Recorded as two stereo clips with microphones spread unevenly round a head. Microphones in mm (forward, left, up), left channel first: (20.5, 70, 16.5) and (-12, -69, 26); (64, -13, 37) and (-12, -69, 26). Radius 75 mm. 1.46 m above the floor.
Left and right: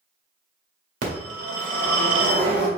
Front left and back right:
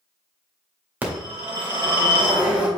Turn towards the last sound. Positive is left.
turn(degrees=-70)